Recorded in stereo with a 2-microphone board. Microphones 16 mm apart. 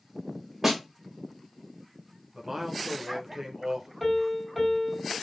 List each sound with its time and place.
0.6 s a snare drum: 10° right (ahead or behind), 1.2 m
2.3 s a man speaking: 25° right (ahead or behind), 0.9 m
4.0 s a piano: 10° right (ahead or behind), 1.3 m